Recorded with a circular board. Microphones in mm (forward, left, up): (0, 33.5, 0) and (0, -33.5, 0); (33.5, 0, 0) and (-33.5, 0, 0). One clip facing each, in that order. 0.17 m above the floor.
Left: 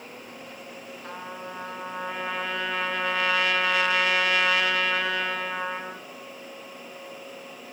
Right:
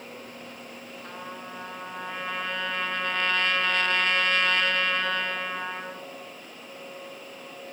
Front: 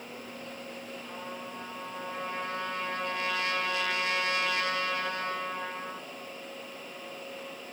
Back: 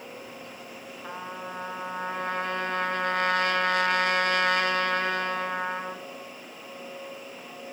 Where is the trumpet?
170° left, 2.5 m.